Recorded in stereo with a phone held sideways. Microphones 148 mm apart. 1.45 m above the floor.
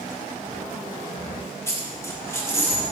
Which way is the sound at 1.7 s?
15° left (ahead or behind).